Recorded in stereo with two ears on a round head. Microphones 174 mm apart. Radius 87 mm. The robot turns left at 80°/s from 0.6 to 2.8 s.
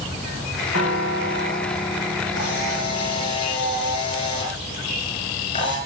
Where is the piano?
95° left, 3.5 m; by 3.3 s 70° right, 3.5 m.